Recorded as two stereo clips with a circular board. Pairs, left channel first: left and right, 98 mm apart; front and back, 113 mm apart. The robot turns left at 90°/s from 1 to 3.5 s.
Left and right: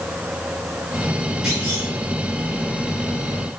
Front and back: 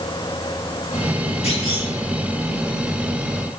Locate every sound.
1.4 s a clunk: 10° right, 4 m; by 1.9 s 55° right, 4 m